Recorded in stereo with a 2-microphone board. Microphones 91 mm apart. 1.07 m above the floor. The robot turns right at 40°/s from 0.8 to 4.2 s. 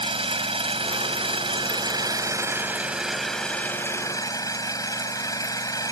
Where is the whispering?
I don't hear whispering.